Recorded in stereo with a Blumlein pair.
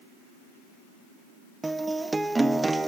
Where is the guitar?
10° right, 1.1 m.